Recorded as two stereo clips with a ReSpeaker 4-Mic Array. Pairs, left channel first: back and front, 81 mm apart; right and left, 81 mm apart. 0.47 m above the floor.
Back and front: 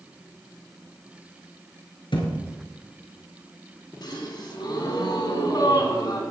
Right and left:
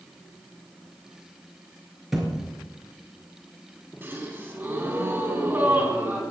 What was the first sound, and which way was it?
A thud, 175° left.